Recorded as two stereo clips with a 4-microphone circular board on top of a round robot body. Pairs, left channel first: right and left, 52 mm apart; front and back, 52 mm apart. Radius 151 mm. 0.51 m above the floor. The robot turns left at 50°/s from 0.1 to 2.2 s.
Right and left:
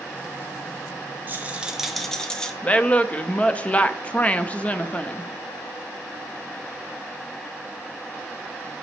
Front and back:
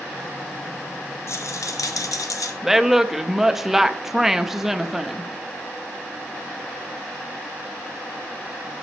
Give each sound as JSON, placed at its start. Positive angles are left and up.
{"t": 1.3, "sound": "a rattle", "azimuth_deg": 35, "distance_m": 0.6}
{"t": 2.6, "sound": "a woman speaking", "azimuth_deg": -105, "distance_m": 0.6}